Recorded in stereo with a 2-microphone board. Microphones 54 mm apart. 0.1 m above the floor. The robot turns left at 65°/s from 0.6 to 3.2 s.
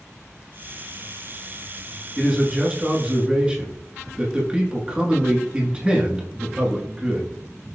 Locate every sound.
2.2 s a man speaking: centre (ahead or behind), 1.1 m; by 7.3 s 20° right (ahead or behind), 1.1 m